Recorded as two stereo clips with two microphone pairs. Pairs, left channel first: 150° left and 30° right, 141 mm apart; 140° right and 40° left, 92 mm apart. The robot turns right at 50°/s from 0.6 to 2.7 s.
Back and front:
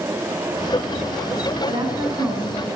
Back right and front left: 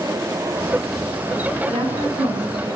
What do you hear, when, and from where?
1.7 s a woman speaking: 20° left, 9 m; by 2.8 s 75° left, 9 m